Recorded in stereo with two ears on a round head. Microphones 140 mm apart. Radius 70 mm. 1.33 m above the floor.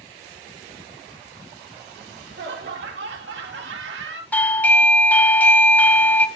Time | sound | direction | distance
2.0 | laughter | 75° right (ahead or behind) | 3 m
4.3 | a doorbell | 10° left (ahead or behind) | 0.7 m